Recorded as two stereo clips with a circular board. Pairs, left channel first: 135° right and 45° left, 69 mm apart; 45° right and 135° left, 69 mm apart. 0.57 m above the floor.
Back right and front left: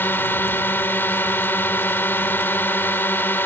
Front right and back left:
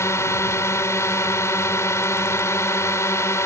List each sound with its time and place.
0.0 s a drone: 80° right